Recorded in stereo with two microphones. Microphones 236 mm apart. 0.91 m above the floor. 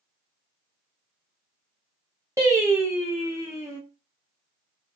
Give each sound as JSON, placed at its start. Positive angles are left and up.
{"t": 2.4, "sound": "singing", "side_deg": -10, "distance_m": 0.6}